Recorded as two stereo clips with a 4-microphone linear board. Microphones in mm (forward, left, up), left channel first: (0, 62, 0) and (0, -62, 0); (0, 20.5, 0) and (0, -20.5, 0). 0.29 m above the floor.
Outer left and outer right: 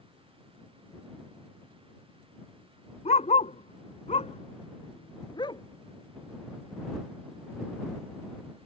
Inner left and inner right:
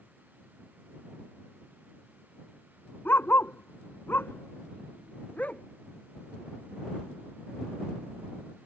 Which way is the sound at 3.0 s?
65° left (ahead or behind).